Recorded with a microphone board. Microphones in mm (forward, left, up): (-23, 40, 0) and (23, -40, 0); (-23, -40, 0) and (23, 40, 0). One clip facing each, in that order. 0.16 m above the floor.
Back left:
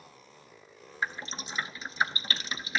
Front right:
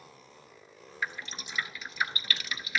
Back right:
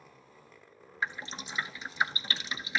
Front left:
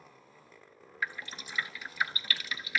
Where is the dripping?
175° left, 0.7 m.